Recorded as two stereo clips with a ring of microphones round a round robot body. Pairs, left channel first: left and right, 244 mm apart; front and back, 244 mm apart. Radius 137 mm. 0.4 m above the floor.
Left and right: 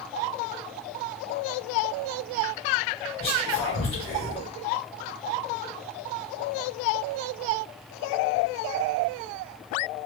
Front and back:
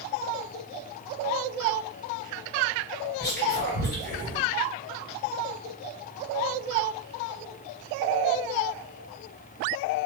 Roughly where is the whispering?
Ahead left.